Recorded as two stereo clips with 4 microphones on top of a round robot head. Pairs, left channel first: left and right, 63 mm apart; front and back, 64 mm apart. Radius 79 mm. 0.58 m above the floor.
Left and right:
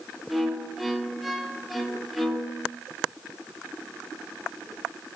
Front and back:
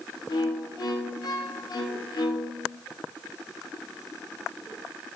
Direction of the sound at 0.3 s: Straight ahead.